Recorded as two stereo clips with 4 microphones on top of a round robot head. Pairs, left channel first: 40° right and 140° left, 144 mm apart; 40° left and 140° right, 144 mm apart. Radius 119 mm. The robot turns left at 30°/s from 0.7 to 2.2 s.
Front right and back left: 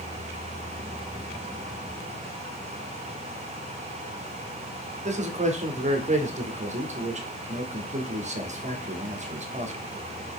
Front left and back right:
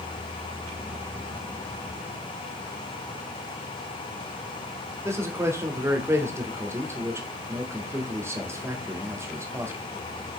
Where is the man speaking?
150° left, 1.8 m.